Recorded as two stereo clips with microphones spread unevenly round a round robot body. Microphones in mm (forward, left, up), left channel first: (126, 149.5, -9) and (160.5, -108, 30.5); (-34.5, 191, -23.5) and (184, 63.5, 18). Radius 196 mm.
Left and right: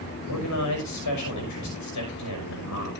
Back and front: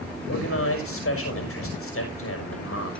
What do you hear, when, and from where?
0.3 s a man speaking: 120° left, 6 m